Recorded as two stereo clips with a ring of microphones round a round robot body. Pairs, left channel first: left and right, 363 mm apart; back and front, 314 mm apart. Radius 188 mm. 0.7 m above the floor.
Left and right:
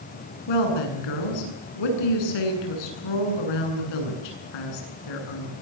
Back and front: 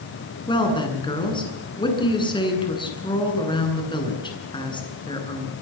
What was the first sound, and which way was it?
A woman speaking, 105° left.